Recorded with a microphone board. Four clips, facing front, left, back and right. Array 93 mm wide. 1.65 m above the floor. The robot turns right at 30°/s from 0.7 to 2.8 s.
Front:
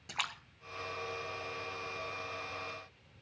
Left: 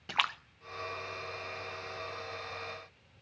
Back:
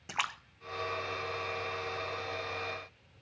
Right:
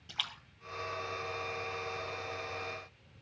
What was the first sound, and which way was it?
A splash, 115° left.